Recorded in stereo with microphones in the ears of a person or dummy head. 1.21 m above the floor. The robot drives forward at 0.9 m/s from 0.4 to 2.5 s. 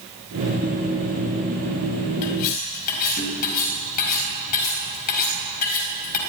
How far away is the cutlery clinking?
About 5 m.